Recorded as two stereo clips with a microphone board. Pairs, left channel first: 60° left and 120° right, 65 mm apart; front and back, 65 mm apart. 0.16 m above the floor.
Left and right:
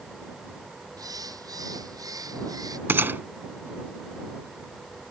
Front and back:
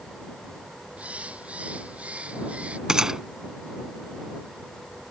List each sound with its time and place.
1.0 s a bird: 110° right
2.9 s a gunshot: 105° right